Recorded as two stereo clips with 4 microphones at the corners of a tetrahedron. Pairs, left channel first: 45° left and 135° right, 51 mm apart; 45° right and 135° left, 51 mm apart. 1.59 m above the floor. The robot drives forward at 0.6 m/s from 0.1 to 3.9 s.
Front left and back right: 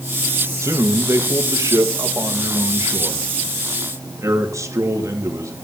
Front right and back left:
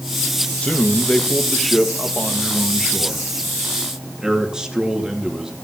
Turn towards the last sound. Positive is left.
turn(degrees=-145)